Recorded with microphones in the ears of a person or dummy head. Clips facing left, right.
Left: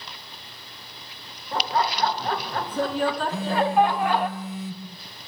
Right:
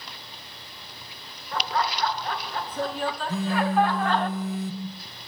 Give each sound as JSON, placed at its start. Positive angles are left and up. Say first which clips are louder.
{"t": 1.5, "sound": "laughter", "louder": "left 3 dB", "side_deg": 30, "distance_m": 2.0}
{"t": 3.3, "sound": "a phone buzzing", "louder": "left 1 dB", "side_deg": -40, "distance_m": 2.5}